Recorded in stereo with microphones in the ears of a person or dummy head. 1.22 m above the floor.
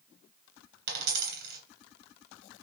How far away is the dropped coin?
About 3 m.